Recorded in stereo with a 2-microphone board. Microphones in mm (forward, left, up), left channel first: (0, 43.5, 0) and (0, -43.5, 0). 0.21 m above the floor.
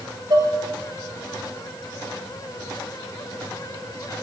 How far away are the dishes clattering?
About 2 m.